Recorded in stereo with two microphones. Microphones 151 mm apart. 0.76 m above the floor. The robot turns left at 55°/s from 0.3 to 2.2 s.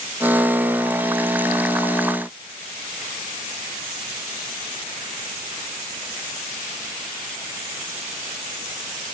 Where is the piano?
No piano in this recording.